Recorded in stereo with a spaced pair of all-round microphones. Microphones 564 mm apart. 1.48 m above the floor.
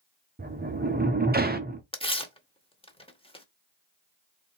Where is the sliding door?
15° right (ahead or behind), 0.8 m.